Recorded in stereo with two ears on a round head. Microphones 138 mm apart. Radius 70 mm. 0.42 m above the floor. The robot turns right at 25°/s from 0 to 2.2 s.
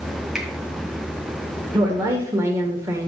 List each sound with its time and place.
0.3 s a finger snap: centre (ahead or behind), 1.9 m; by 0.5 s 5° right (ahead or behind), 1.9 m
1.7 s a woman speaking: 25° right (ahead or behind), 1.5 m; by 3.1 s 20° right (ahead or behind), 1.5 m